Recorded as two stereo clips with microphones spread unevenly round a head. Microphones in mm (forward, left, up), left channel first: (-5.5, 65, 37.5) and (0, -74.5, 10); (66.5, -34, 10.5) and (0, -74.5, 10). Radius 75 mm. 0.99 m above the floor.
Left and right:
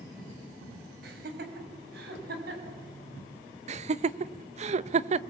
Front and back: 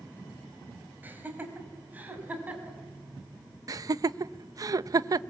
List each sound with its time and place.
1.0 s laughter: 85° right, 5.5 m; by 2.8 s 80° right, 7.5 m
3.7 s laughter: 110° right, 0.8 m